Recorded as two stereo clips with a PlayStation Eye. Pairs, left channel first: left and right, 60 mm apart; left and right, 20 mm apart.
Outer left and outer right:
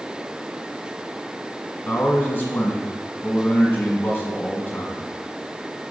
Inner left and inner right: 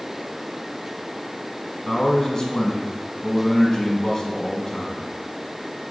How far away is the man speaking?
About 1.3 m.